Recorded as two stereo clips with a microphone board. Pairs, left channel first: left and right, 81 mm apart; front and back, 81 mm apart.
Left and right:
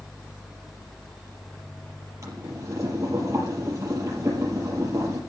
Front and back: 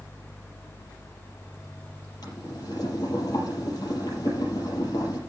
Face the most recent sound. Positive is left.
turn(degrees=-40)